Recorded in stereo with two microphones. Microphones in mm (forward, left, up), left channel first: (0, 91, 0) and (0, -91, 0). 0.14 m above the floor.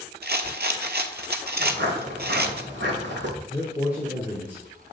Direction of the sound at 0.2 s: 65° right (ahead or behind).